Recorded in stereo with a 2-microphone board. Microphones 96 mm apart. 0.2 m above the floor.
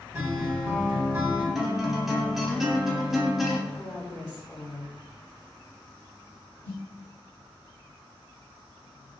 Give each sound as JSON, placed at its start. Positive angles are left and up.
{"t": 0.1, "sound": "a guitar", "side_deg": -25, "distance_m": 1.2}
{"t": 1.6, "sound": "a guitar", "side_deg": -5, "distance_m": 0.6}
{"t": 3.7, "sound": "a woman speaking", "side_deg": 40, "distance_m": 1.3}
{"t": 6.6, "sound": "a snare drum", "side_deg": 20, "distance_m": 1.6}